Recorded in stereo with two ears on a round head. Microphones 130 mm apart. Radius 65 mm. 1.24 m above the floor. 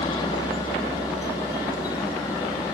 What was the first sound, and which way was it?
A helicopter, 30° left (ahead or behind).